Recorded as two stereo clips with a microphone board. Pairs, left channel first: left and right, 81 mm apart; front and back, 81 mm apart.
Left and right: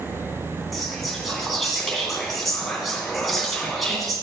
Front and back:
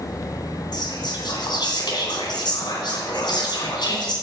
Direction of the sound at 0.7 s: Straight ahead.